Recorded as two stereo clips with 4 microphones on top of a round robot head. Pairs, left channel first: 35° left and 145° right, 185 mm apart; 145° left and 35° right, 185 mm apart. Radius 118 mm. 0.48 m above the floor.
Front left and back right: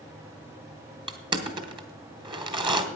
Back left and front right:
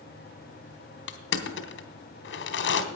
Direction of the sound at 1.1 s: 150° left.